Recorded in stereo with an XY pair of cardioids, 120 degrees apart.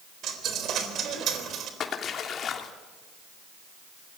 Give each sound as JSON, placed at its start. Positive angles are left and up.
{"t": 0.2, "sound": "a dropped coin", "azimuth_deg": -60, "distance_m": 4.0}
{"t": 1.8, "sound": "a splash", "azimuth_deg": 50, "distance_m": 3.0}